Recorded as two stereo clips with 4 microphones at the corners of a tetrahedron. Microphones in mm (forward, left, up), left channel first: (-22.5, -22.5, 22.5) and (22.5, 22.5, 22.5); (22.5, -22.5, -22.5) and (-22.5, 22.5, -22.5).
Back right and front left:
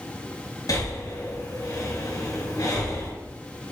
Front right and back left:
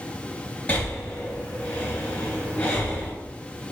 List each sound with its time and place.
0.7 s breathing: 120° right, 3 m